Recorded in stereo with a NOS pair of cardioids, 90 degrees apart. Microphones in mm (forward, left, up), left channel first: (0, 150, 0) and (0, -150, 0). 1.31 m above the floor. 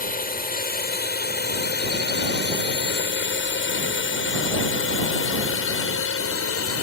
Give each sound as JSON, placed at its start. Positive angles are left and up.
{"t": 0.0, "sound": "a drone", "azimuth_deg": 30}